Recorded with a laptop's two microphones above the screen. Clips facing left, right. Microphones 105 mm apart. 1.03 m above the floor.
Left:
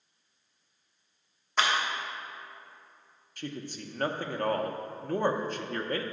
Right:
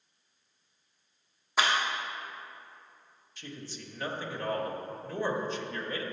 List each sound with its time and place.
1.6 s a clap: 5° right (ahead or behind), 1.3 m
3.4 s a man speaking: 50° left (ahead or behind), 0.6 m